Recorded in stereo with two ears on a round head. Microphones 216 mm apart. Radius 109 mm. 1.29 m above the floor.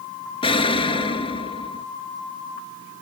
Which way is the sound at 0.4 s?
20° left (ahead or behind).